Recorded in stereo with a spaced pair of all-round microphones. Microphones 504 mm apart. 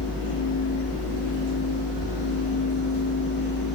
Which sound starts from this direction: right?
A fan, at 0.0 s.